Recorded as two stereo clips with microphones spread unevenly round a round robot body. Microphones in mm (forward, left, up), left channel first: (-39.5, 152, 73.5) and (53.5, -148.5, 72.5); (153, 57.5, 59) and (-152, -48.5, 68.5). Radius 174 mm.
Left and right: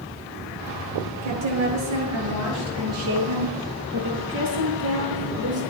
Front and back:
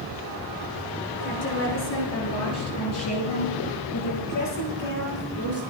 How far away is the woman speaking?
About 7.5 m.